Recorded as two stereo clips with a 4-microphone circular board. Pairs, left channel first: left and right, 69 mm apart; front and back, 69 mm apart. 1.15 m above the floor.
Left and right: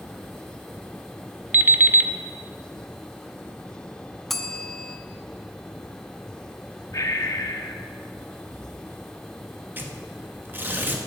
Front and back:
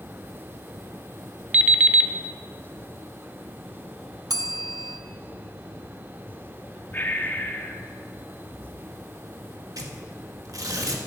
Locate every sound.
1.5 s an alarm clock: 130° right, 0.8 m
4.3 s a bell: 175° left, 0.9 m
6.9 s breathing: 60° left, 1.2 m
9.8 s tearing paper: 150° right, 1.3 m